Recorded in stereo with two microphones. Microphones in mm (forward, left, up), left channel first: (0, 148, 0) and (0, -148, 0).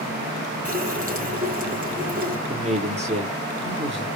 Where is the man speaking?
20° right (ahead or behind), 3 m.